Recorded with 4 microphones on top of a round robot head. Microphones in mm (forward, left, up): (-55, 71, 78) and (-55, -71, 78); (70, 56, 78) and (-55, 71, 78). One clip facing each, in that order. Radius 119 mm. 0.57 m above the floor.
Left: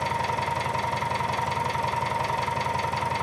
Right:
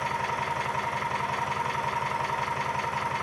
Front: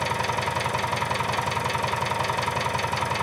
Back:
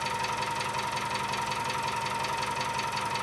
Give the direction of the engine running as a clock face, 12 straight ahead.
11 o'clock.